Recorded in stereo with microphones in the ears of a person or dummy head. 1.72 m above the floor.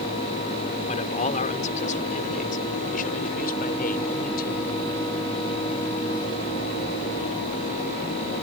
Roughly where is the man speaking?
Left.